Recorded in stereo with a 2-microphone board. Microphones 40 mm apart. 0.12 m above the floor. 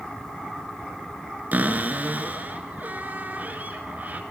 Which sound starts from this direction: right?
A cupboard door, at 1.5 s.